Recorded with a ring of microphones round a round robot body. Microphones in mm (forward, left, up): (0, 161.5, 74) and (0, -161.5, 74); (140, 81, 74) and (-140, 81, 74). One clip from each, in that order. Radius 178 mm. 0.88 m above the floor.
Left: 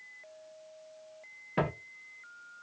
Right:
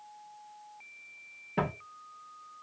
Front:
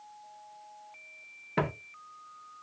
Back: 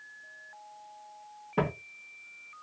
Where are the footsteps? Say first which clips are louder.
Left 1 dB, back 1 dB; 20° left, 1.1 m.